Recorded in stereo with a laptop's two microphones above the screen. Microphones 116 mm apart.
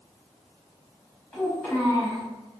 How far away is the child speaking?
About 1.4 m.